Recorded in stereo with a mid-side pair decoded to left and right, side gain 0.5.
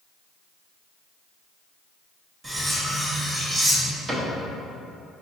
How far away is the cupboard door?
About 1.2 m.